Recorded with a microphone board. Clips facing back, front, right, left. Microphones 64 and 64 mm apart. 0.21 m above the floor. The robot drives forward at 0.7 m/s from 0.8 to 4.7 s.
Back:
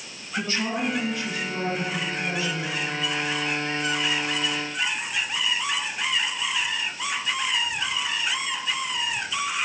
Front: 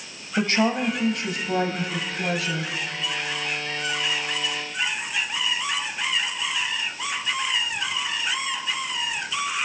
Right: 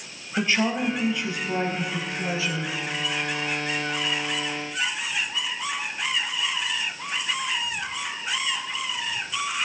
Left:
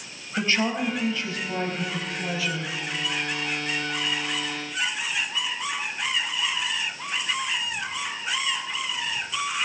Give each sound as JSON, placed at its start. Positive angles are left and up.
{"t": 0.4, "sound": "a woman speaking", "azimuth_deg": -10, "distance_m": 4.5}